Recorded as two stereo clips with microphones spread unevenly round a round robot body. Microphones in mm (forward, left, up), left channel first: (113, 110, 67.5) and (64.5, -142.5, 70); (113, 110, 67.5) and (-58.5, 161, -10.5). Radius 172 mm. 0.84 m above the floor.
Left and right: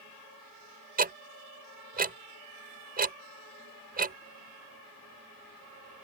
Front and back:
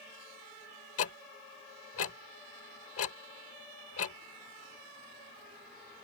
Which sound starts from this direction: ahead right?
Ticking, at 1.0 s.